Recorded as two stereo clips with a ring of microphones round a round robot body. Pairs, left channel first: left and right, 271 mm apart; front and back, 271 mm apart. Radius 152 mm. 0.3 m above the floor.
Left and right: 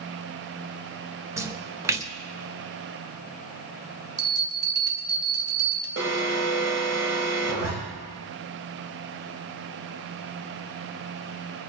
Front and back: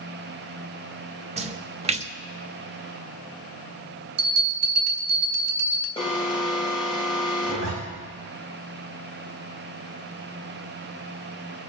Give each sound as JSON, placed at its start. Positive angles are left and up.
{"t": 1.4, "sound": "a splash", "azimuth_deg": -155, "distance_m": 1.0}
{"t": 4.2, "sound": "a bell", "azimuth_deg": -165, "distance_m": 2.5}
{"t": 6.0, "sound": "an alarm", "azimuth_deg": -70, "distance_m": 2.5}
{"t": 7.4, "sound": "a zipper", "azimuth_deg": -110, "distance_m": 6.5}